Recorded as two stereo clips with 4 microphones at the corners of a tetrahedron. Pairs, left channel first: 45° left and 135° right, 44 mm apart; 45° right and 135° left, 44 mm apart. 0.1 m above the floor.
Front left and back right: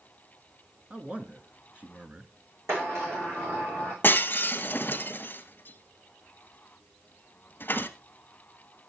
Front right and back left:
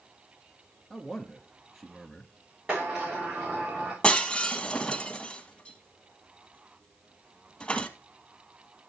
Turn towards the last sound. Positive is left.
turn(degrees=15)